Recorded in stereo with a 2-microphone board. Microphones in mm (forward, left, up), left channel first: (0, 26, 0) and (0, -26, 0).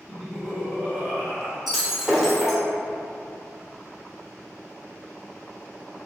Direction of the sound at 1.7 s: Centre (ahead or behind).